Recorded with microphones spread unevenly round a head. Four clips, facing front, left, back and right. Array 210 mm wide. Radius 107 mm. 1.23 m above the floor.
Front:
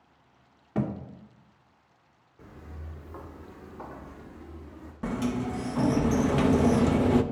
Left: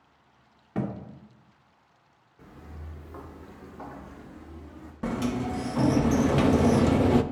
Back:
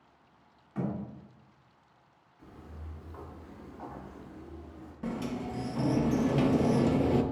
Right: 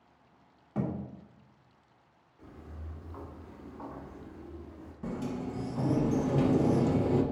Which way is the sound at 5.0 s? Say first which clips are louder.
Left 7 dB, front 5 dB; 85° left.